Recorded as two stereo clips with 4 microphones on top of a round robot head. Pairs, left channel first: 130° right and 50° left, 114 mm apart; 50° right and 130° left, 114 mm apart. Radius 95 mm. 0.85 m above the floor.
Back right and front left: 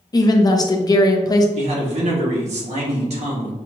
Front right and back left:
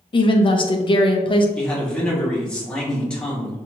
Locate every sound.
0.1 s a woman speaking: 80° right, 0.6 m
1.6 s a man speaking: 35° left, 1.6 m